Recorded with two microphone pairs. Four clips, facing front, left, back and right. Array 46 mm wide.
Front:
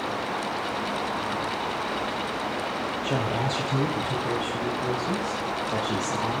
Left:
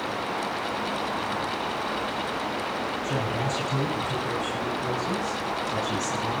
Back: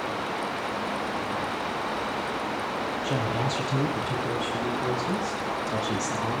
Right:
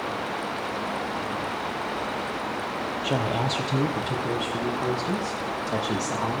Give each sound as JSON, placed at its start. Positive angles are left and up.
{"t": 3.0, "sound": "a woman speaking", "azimuth_deg": -75, "distance_m": 4.5}